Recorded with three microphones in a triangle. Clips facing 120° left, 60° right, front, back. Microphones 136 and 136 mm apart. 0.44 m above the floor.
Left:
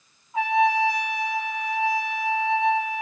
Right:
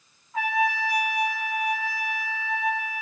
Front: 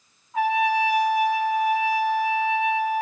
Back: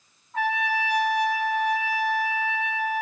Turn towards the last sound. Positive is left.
turn(degrees=70)